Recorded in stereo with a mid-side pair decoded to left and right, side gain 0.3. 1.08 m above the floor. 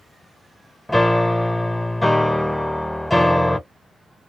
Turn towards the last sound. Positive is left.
turn(degrees=10)